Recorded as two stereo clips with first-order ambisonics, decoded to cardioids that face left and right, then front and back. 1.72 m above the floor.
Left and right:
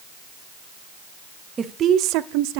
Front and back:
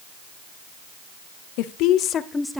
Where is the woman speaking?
15° right, 0.8 m; by 2.6 s 95° right, 0.8 m.